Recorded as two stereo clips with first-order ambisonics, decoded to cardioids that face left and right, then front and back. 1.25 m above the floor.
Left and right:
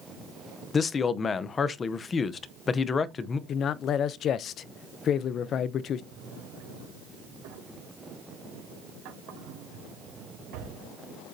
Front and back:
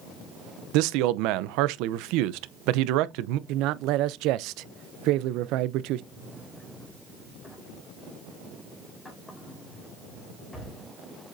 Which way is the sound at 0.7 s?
160° left.